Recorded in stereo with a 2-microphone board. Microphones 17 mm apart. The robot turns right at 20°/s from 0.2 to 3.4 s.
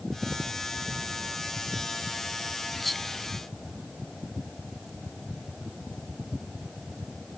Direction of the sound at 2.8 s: 5° left (ahead or behind).